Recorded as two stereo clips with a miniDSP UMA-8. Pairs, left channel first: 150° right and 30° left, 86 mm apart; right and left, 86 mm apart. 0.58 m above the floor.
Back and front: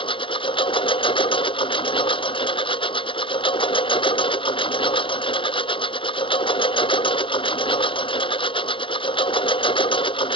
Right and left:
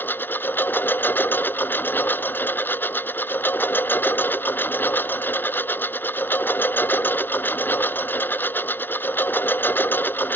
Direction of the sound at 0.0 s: 155° right.